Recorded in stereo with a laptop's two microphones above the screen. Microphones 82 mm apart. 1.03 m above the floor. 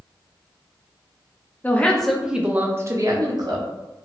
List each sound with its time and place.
1.6 s a woman speaking: 20° left (ahead or behind), 0.7 m; by 3.6 s 55° right (ahead or behind), 1.0 m